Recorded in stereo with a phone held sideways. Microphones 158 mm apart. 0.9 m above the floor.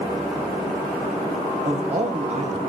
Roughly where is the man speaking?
Right.